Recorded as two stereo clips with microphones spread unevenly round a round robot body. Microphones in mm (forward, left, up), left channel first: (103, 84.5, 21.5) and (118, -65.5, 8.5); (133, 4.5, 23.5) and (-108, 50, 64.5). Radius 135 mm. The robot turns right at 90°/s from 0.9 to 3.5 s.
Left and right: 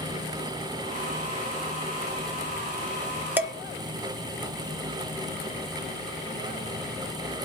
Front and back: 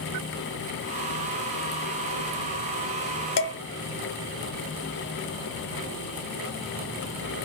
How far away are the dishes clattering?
About 0.8 m.